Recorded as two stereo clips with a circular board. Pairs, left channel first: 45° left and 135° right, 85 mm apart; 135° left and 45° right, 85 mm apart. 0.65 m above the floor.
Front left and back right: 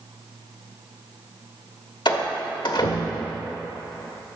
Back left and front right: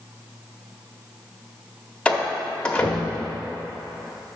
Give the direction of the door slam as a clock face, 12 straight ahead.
10 o'clock.